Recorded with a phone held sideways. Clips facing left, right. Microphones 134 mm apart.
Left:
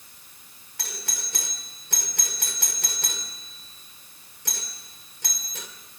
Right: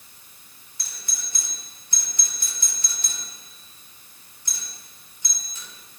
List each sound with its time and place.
0.8 s a doorbell: 80° left, 3 m